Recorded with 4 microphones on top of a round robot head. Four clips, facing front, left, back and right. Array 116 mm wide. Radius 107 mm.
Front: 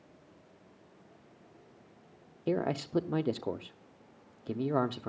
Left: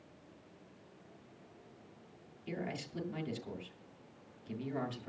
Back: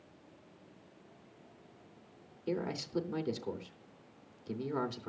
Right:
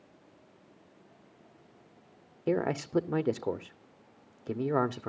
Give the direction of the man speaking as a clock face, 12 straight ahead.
2 o'clock.